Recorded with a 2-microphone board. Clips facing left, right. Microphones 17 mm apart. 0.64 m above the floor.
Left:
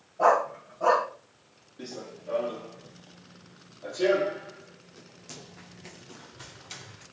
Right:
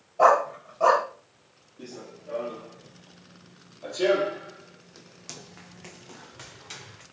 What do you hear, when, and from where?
0.2 s a dog barking: 65° right (ahead or behind), 1.4 m
1.8 s running footsteps: 35° left (ahead or behind), 1.0 m; by 7.0 s 50° right (ahead or behind), 2 m